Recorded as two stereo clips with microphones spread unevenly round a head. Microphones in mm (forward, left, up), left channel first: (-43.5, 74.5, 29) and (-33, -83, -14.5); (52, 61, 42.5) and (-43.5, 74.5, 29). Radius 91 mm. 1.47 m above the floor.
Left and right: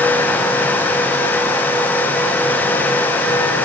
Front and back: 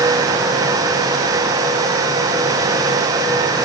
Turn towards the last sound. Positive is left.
No sound to turn to.